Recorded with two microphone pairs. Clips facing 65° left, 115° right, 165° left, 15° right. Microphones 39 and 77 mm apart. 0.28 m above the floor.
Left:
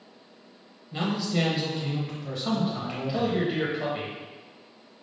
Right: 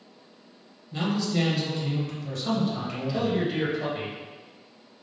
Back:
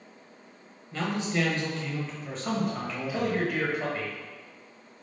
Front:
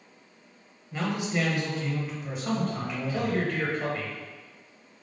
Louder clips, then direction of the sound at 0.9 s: Right 1 dB, even; 25° left.